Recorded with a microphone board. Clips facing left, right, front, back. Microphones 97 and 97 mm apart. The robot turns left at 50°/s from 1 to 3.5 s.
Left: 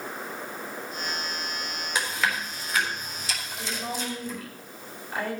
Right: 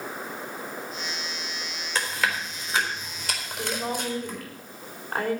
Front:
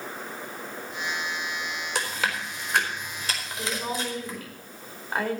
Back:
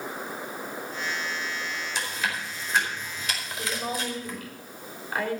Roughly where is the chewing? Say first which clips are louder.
Right 1 dB, front 3 dB; ahead.